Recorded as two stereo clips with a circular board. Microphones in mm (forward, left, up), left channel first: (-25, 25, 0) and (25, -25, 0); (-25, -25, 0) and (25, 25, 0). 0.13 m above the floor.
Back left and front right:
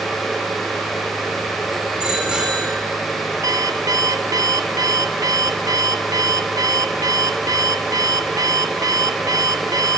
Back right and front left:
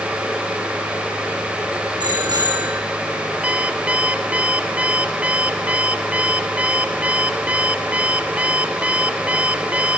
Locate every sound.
2.0 s a bicycle bell: 35° left, 5.5 m
3.4 s an alarm clock: 25° right, 1.0 m